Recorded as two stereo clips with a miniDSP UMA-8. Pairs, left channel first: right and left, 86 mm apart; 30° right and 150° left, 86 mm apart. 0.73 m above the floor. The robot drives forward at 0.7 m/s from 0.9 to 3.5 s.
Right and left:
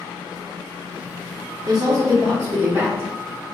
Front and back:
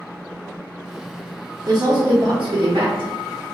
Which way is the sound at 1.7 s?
120° left.